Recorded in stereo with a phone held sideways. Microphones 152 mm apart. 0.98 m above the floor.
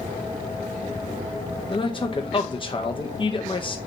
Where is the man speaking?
35° left (ahead or behind), 0.5 m.